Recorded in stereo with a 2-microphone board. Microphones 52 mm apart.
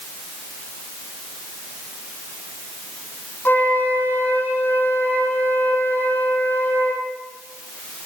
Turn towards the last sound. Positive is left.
turn(degrees=40)  # may be behind; listen again after turning